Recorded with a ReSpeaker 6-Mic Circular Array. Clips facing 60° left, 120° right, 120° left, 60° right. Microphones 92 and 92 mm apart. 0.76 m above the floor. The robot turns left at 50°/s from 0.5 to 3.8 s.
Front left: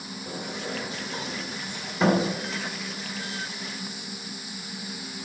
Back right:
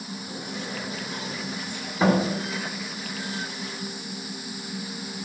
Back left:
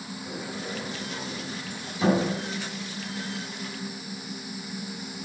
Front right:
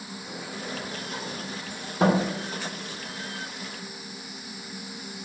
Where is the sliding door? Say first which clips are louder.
Front left 3 dB, back left 1 dB; 40° left, 2.5 m; by 2.3 s 50° right, 2.5 m.